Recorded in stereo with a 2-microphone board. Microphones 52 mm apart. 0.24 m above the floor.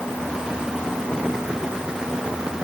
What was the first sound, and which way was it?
Only background noise.